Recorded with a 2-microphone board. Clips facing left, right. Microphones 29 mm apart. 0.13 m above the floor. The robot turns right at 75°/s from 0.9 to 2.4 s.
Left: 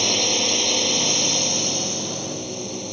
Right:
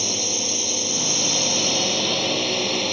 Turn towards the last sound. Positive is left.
turn(degrees=-100)